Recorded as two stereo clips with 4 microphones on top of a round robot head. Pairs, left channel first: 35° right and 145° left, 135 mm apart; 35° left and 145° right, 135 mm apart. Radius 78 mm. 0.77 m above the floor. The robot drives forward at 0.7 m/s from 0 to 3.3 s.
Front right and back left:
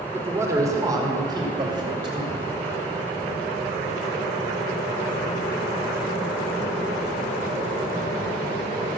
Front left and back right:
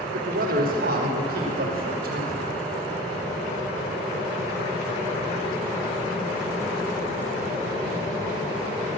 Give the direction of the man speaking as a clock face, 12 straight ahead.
5 o'clock.